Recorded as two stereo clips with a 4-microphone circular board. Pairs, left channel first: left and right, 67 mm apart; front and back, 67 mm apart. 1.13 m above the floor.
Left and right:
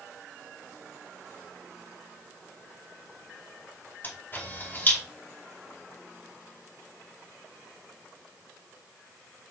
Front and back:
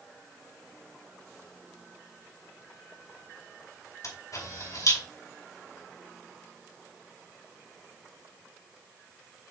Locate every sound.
4.0 s a camera shutter: 30° left, 5 m